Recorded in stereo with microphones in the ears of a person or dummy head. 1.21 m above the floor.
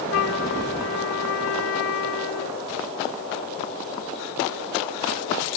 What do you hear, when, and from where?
0.1 s a flute: 75° left (ahead or behind)